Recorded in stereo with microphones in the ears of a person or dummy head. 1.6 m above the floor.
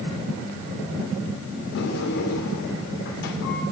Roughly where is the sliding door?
Left.